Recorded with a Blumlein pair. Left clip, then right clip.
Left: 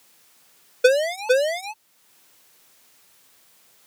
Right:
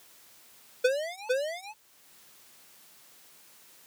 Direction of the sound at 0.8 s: 60° left.